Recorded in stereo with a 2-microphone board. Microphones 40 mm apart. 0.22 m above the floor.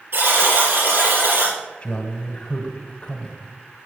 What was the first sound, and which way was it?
A buzzer, 60° right (ahead or behind).